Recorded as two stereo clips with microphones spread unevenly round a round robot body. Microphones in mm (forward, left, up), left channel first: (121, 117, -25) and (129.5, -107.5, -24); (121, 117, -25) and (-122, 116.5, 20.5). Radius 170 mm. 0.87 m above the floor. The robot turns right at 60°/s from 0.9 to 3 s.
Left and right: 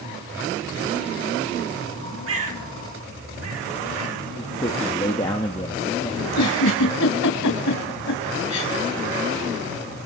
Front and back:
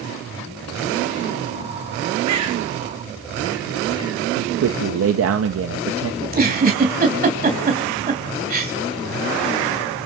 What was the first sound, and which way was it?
A bird, 140° right.